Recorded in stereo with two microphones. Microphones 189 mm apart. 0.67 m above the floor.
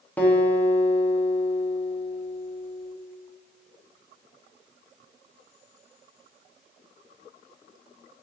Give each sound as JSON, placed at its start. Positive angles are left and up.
{"t": 0.2, "sound": "a guitar", "side_deg": 10, "distance_m": 1.2}